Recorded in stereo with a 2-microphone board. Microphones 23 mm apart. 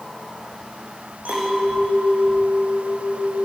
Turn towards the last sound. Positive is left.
turn(degrees=-80)